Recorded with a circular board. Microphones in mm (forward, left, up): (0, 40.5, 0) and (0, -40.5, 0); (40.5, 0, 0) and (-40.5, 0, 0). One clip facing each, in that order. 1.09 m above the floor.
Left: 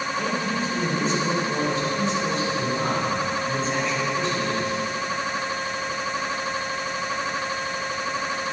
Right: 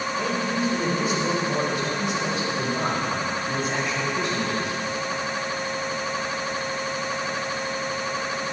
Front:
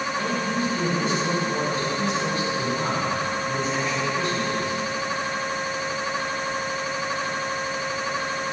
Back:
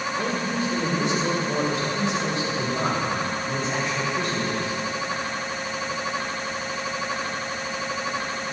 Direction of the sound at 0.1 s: 170° right.